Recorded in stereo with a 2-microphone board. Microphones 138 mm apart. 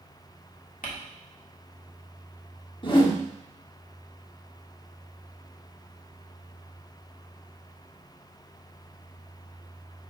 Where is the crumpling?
80° left, 1.7 m.